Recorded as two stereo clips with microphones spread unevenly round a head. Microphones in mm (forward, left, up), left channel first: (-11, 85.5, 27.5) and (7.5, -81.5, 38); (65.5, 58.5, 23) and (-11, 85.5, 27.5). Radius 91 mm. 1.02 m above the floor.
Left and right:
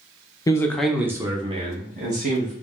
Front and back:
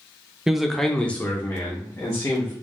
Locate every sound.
0.5 s a man speaking: 80° left, 0.8 m; by 2.5 s 60° right, 1.3 m